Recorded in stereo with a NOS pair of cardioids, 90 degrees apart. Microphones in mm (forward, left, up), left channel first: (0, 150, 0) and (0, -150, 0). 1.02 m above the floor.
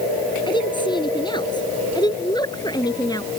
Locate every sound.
0.5 s a woman speaking: 15° left; by 3.3 s 10° left